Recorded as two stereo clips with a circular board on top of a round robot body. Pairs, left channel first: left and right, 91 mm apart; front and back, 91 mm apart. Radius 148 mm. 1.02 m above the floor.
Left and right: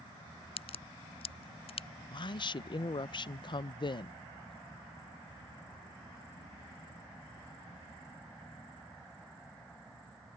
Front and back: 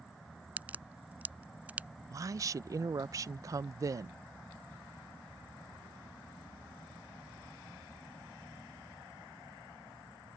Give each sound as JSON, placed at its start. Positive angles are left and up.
{"t": 0.6, "sound": "a crack", "azimuth_deg": 105}
{"t": 2.1, "sound": "a woman speaking", "azimuth_deg": 125}